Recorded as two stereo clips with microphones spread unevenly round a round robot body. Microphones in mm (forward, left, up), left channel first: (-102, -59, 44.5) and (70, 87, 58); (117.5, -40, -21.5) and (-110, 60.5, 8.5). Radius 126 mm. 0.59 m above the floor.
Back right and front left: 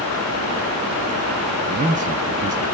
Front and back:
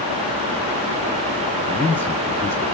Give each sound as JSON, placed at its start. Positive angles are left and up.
{"t": 1.7, "sound": "a man speaking", "azimuth_deg": 35, "distance_m": 0.9}